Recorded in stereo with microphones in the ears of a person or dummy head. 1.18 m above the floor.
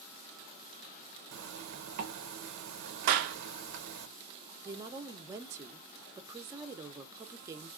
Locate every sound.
1.3 s a zipper: 50° right (ahead or behind), 1.0 m
3.1 s a clap: 50° right (ahead or behind), 0.7 m
4.7 s a woman speaking: 25° right (ahead or behind), 0.6 m